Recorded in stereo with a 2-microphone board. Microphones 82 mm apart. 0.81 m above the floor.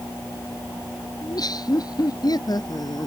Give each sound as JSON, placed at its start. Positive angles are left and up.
{"t": 1.2, "sound": "laughter", "side_deg": 55}